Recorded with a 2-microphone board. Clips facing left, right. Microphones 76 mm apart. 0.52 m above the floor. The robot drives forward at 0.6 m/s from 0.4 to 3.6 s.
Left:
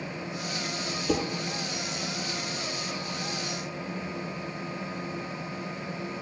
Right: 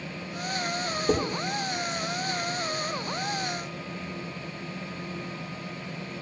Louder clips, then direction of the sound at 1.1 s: Right 2 dB; 80° right.